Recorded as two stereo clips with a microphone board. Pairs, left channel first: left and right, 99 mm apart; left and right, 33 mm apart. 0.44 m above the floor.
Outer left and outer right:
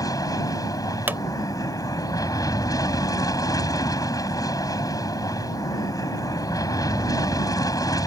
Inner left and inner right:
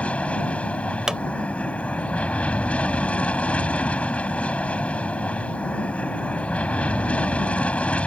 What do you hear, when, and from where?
0.0 s an aircraft: 40° left (ahead or behind)
1.1 s a pop: 20° right (ahead or behind)